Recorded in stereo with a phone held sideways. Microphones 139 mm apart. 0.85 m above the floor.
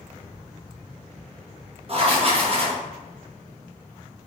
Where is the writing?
45° right (ahead or behind), 0.9 m.